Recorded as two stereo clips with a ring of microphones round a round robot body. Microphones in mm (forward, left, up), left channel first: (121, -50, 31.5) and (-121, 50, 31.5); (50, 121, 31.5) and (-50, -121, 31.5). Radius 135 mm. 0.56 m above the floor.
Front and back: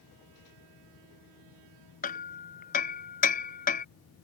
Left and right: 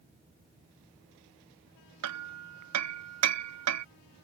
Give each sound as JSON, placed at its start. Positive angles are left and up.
{"t": 2.0, "sound": "hammering", "azimuth_deg": -85}